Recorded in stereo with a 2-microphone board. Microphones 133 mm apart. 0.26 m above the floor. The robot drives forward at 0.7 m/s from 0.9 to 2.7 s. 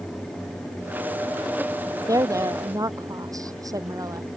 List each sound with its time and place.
2.1 s a woman speaking: 25° right (ahead or behind)